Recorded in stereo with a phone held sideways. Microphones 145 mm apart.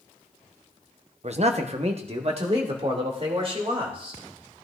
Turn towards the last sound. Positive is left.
turn(degrees=-40)  # may be behind; listen again after turning